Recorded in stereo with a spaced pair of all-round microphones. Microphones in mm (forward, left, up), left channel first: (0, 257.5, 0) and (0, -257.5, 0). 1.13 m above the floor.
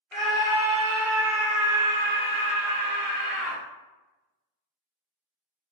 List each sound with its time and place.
0.1 s a scream: centre (ahead or behind), 1.1 m; by 3.6 s 65° right (ahead or behind), 1.2 m